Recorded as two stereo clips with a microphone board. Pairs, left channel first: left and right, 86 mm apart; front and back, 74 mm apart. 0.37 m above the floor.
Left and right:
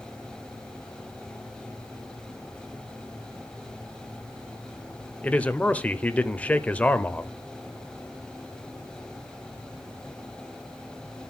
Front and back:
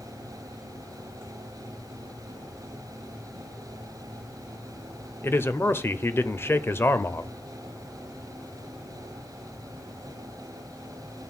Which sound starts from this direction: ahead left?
A man speaking, at 5.2 s.